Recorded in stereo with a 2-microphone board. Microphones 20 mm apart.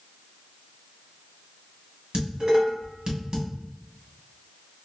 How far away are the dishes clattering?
About 1.2 m.